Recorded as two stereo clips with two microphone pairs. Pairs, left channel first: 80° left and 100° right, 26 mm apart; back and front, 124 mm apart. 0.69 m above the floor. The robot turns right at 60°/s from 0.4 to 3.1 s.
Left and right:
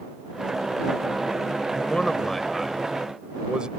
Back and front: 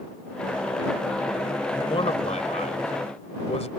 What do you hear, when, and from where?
1.7 s a man speaking: 125° left; by 3.7 s 150° right